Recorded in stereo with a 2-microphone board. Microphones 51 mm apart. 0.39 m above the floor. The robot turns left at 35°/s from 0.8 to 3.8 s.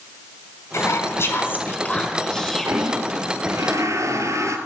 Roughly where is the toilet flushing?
Ahead right.